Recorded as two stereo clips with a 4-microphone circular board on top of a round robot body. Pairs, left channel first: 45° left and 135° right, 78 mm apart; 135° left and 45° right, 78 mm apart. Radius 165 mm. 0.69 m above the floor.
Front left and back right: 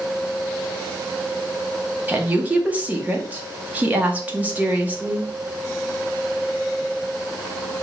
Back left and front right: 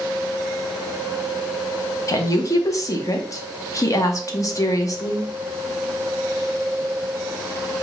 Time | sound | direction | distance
2.1 | a woman speaking | 160° left | 1.3 m